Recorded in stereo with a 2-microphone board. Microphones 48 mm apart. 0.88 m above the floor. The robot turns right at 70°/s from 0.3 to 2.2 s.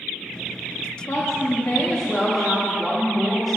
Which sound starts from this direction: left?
A woman speaking, at 1.1 s.